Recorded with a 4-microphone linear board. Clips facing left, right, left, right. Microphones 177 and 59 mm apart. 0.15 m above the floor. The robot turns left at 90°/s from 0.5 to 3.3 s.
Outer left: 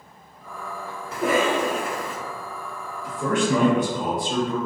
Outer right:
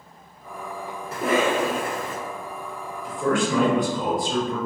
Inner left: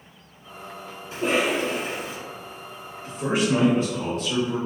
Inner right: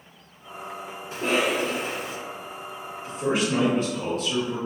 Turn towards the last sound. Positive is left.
turn(degrees=25)  # may be behind; listen again after turning